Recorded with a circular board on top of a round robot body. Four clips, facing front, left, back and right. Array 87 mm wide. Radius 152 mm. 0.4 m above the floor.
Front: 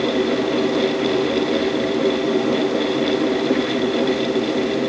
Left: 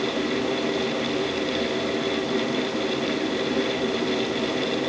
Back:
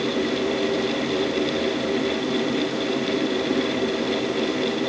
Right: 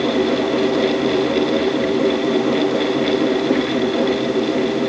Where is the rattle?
No rattle in this recording.